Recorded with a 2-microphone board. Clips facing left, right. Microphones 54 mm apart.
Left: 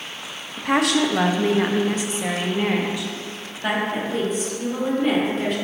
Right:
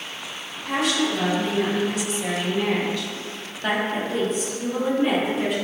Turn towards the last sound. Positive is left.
turn(degrees=-5)  # may be behind; listen again after turning